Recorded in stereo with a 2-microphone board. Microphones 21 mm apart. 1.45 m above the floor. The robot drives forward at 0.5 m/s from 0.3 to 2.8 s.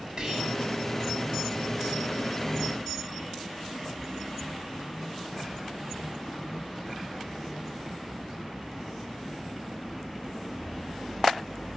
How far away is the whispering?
About 1.3 m.